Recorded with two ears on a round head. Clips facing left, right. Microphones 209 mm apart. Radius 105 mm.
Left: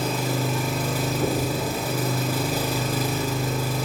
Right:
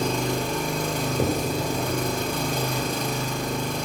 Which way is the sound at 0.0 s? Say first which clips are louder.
Even; 5° left (ahead or behind).